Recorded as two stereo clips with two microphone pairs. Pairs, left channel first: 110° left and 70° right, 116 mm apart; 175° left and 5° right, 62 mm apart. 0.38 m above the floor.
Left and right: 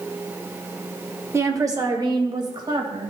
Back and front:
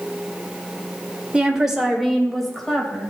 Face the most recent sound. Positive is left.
turn(degrees=-110)